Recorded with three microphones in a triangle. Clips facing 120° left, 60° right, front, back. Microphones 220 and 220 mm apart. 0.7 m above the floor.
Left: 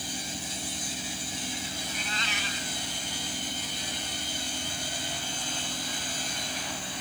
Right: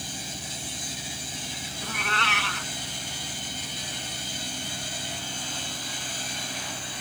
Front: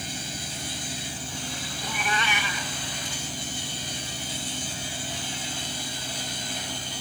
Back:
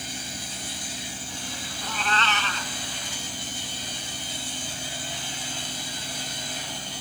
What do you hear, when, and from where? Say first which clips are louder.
1.8 s a cat meowing: right 4 dB, back 1 dB; 80° right